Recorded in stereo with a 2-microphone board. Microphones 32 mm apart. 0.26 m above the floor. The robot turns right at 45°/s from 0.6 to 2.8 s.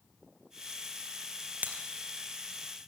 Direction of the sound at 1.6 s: 60° right (ahead or behind).